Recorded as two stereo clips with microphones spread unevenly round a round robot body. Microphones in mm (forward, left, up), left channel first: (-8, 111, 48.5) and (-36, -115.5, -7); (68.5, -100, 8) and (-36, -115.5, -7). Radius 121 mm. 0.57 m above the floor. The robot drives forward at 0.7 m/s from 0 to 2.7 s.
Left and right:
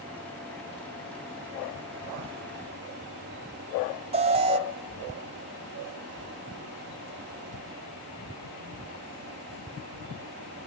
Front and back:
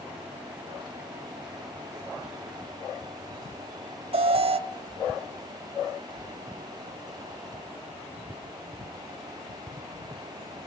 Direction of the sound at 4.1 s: 160° right.